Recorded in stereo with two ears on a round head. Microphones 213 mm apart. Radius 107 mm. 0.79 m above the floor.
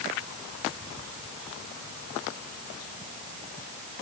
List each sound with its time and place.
Only background noise.